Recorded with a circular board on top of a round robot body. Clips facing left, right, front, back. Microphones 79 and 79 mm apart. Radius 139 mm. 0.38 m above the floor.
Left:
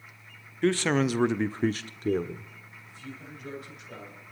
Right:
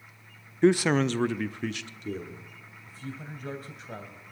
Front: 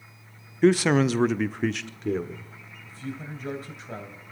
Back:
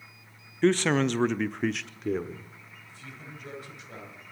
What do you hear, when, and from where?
0.6 s a man speaking: 65° right, 0.8 m; by 2.5 s 95° left, 1.4 m
2.9 s a man speaking: 45° right, 3 m